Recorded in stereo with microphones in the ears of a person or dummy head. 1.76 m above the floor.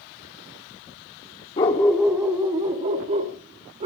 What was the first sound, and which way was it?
A dog barking, 15° left (ahead or behind).